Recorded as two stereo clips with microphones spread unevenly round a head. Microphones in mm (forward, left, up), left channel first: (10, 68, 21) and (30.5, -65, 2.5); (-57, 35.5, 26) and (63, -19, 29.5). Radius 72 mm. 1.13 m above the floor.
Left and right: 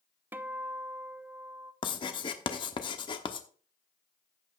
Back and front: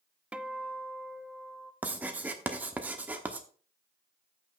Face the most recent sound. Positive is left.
turn(degrees=50)